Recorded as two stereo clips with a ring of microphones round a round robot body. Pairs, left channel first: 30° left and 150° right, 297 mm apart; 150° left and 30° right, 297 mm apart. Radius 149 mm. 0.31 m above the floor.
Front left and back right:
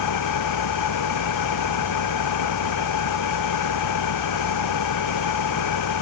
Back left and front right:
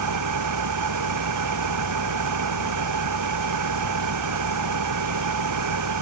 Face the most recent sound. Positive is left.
turn(degrees=0)